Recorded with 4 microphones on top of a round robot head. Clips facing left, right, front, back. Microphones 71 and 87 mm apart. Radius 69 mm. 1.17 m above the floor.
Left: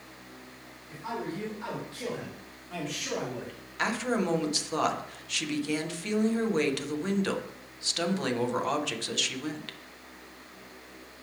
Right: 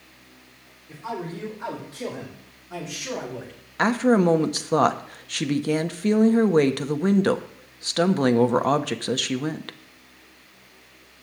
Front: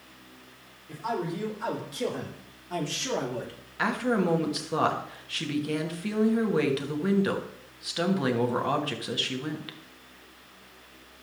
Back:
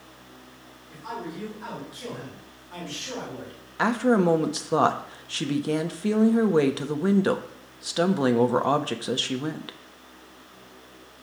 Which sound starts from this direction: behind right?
A woman speaking, at 3.8 s.